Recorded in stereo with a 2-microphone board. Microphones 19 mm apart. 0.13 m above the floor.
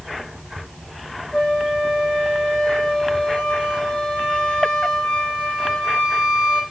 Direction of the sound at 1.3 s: 65° left (ahead or behind).